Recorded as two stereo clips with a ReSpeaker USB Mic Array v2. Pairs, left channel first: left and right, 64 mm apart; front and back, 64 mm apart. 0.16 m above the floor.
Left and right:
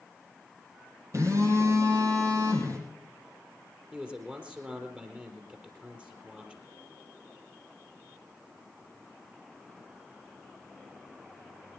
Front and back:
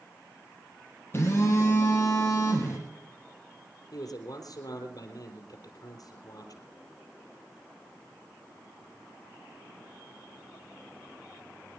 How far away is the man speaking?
About 4 m.